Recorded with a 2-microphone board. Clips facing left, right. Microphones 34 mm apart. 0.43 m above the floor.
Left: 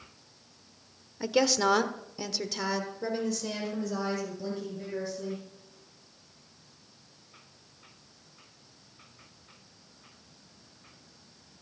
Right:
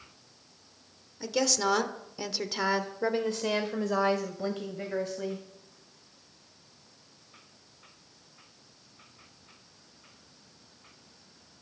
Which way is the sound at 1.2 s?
20° left (ahead or behind).